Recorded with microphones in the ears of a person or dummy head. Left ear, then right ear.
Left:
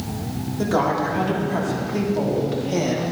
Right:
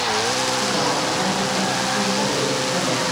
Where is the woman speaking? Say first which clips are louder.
Right 1 dB; 75° left (ahead or behind), 3.5 m; by 3.0 s 85° left, 2.5 m.